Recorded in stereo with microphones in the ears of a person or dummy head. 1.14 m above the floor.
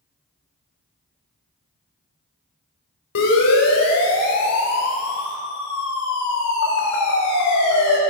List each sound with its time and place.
3.1 s a siren: 65° left (ahead or behind), 4 m; by 8.0 s 70° left (ahead or behind), 4 m